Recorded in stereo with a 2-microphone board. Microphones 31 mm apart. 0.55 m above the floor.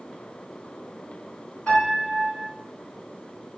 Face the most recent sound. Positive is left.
turn(degrees=45)  # may be behind; listen again after turning